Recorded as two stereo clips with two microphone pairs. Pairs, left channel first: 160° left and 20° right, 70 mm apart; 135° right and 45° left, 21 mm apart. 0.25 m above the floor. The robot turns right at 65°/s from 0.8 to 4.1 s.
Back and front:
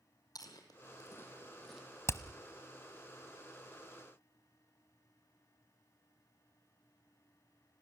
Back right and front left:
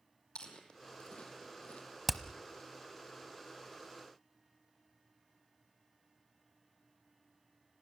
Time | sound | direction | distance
0.3 | chewing | 170° right | 3 m
2.1 | hammering | 135° left | 0.9 m